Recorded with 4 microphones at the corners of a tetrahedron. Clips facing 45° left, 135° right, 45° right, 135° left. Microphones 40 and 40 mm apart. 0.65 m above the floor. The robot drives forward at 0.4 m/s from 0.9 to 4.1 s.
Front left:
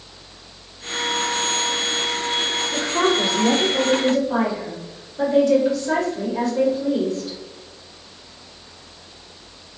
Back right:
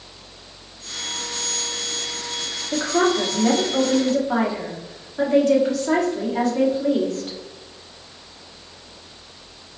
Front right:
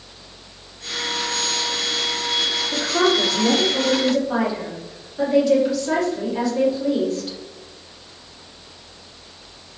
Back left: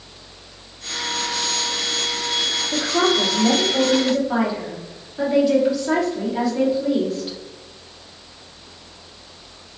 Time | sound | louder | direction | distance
2.7 | a woman speaking | back right 2 dB, even | 135° right | 1.5 m